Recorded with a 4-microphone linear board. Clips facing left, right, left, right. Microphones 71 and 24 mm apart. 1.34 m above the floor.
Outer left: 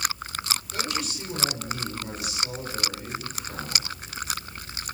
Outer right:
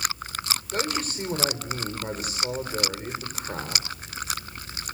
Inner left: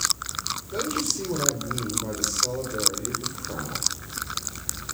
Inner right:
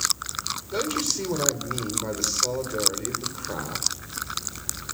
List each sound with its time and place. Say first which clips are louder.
0.7 s a man speaking: outer right 4 dB, inner right 1 dB; 45° right (ahead or behind), 6 m